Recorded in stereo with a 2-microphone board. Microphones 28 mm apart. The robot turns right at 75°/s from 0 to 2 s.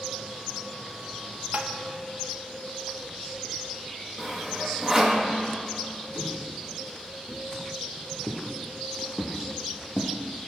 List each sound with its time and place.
1.5 s tapping: 55° right (ahead or behind), 1.0 m; by 1.7 s 65° right (ahead or behind), 1.0 m
4.2 s sawing: 15° right (ahead or behind), 2 m
6.2 s footsteps: 40° left (ahead or behind), 4 m; by 10.1 s 10° left (ahead or behind), 2.5 m